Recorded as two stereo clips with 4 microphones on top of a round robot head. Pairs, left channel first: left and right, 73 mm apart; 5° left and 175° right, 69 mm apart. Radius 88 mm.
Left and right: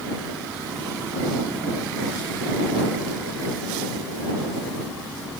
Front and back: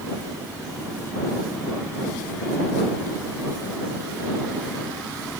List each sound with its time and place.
Only background noise.